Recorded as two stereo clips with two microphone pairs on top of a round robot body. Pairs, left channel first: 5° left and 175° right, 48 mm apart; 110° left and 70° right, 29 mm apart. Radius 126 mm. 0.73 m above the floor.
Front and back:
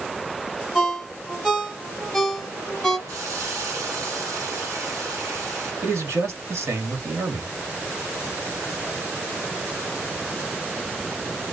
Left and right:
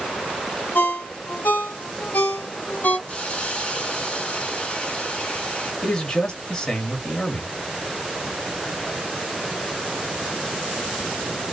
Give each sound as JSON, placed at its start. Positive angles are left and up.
{"t": 0.8, "sound": "a ringtone", "azimuth_deg": 90, "distance_m": 1.0}
{"t": 3.1, "sound": "a hiss", "azimuth_deg": 175, "distance_m": 1.7}
{"t": 5.8, "sound": "a man speaking", "azimuth_deg": 175, "distance_m": 1.6}